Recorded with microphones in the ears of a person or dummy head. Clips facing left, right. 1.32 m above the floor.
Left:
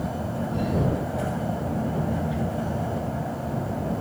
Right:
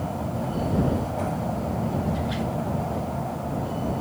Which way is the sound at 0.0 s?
10° left (ahead or behind).